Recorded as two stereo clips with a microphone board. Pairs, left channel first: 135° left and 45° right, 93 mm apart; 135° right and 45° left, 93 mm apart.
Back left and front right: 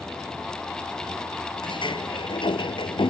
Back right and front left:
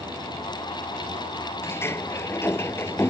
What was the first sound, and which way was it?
A vehicle, 50° left.